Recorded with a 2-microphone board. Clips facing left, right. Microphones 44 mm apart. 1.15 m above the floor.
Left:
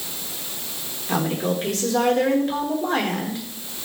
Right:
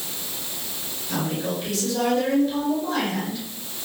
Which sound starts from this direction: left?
A woman speaking, at 1.1 s.